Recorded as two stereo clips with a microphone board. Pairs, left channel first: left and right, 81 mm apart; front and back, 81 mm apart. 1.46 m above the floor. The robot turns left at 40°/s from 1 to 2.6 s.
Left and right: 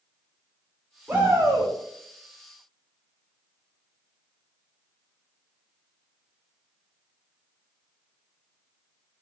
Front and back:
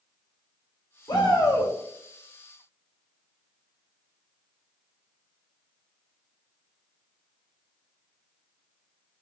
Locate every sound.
1.1 s a shout: 20° right, 1.7 m; by 1.7 s 45° right, 1.7 m